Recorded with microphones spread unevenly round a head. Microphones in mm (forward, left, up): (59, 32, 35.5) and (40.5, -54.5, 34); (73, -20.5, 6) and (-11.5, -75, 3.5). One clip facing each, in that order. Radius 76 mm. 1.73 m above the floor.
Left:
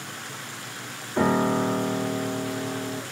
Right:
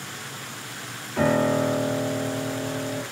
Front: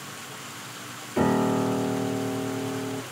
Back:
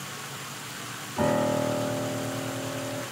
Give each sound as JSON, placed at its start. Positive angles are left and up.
{"t": 1.2, "sound": "a piano", "azimuth_deg": 15, "distance_m": 3.0}